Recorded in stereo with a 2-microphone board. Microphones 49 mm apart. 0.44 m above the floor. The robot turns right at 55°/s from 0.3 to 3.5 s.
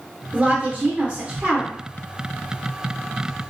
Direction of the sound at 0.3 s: 25° right (ahead or behind).